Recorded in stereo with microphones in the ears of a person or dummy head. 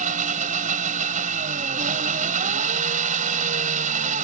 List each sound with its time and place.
0.0 s an engine running: 40° right (ahead or behind)